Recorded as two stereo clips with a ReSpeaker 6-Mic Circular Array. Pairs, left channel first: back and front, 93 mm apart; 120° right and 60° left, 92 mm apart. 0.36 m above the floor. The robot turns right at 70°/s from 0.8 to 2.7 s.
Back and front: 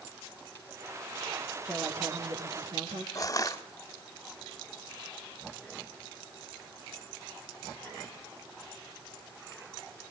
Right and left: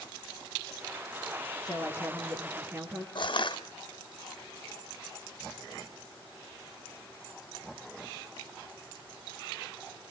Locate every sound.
1.6 s a woman speaking: 80° right, 6 m; by 3.0 s 5° right, 6 m
3.1 s crushing: 130° right, 1.6 m